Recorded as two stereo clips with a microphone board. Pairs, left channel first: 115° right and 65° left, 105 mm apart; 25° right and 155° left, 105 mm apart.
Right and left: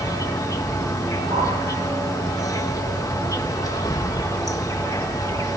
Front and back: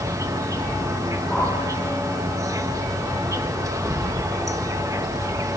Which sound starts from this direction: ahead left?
A whoosh, at 1.3 s.